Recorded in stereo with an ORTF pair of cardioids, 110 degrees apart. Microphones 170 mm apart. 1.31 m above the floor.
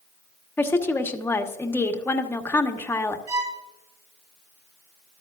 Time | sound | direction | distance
0.6 | a woman speaking | 15° left | 1.2 m
3.3 | a violin | 25° right | 3.5 m